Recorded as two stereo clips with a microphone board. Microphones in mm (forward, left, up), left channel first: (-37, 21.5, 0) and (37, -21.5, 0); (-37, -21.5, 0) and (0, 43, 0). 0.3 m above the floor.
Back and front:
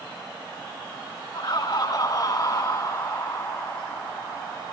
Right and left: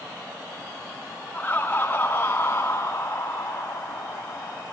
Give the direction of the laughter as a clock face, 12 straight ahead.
6 o'clock.